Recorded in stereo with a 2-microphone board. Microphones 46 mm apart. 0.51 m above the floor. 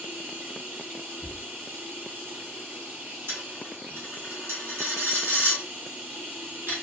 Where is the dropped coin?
60° right (ahead or behind), 1.3 m.